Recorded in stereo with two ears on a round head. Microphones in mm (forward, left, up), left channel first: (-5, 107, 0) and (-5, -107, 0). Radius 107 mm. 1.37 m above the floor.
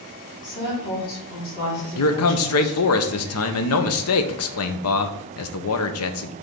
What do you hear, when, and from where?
0.4 s a woman speaking: 40° left (ahead or behind), 4 m
2.0 s a man speaking: 65° left (ahead or behind), 0.9 m